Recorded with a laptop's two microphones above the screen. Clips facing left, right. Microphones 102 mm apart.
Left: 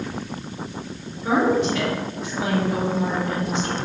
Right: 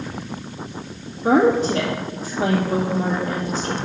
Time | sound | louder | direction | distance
1.2 | a woman speaking | right 4 dB | 30° right (ahead or behind) | 2.0 m